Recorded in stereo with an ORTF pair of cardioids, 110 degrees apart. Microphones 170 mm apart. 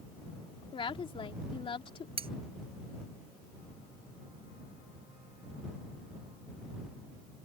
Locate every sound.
0.7 s a woman speaking: 30° left
2.2 s cutlery clinking: 35° right